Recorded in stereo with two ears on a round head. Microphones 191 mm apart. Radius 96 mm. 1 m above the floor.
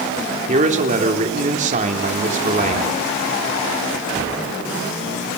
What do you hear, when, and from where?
0.5 s a man speaking: 35° right (ahead or behind), 3.5 m